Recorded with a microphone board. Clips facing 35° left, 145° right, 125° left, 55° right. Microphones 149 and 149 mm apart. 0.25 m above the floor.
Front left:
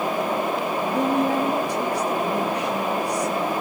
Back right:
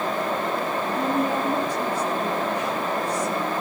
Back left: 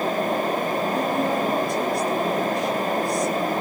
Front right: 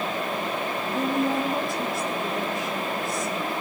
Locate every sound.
0.9 s a woman speaking: 30° left, 4 m